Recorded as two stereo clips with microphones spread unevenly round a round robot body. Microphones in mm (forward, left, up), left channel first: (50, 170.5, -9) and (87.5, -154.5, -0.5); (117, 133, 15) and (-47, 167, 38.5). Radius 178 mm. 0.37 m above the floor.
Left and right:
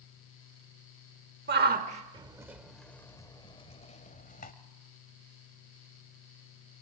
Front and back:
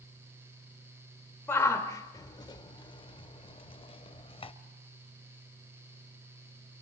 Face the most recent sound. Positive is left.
turn(degrees=35)